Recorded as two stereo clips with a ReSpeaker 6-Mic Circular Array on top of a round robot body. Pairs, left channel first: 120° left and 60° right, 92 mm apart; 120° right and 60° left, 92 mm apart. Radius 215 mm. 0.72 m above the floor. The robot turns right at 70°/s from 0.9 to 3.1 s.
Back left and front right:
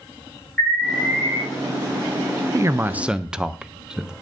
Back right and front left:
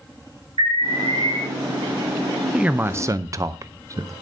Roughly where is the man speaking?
Ahead.